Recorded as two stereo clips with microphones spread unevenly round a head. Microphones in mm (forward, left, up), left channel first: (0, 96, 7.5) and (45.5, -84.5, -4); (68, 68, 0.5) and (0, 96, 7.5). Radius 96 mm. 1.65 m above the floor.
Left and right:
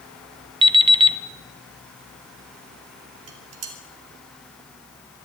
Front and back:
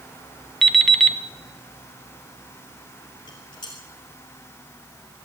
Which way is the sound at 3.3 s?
85° right.